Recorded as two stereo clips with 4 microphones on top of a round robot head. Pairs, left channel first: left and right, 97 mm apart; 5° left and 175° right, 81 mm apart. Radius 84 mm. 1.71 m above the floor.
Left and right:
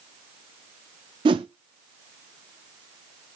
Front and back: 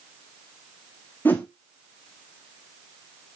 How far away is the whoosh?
About 0.7 m.